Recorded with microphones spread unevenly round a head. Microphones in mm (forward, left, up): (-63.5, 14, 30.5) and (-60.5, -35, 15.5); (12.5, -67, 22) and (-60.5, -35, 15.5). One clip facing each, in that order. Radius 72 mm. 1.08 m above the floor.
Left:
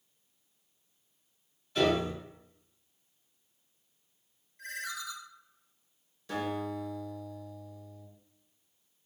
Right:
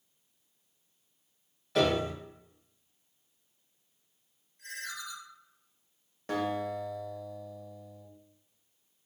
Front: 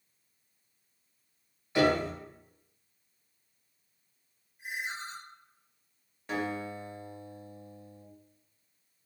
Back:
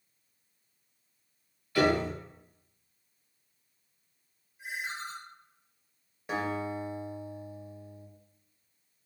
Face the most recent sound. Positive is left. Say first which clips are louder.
# right 2 dB, back 2 dB
turn(degrees=-125)